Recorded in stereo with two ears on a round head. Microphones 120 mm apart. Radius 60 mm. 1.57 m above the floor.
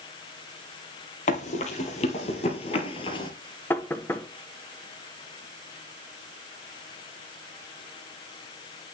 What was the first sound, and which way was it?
Running footsteps, 55° left (ahead or behind).